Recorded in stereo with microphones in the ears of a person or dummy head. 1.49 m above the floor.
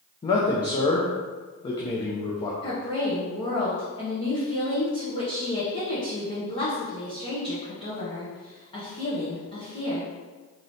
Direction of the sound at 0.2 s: 25° left (ahead or behind).